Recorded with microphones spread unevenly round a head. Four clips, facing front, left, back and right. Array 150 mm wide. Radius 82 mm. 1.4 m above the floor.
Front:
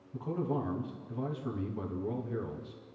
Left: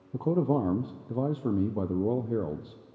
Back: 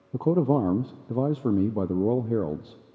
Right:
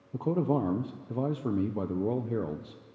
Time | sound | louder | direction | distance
0.1 | a man speaking | left 2 dB, back 12 dB | 175° left | 0.7 m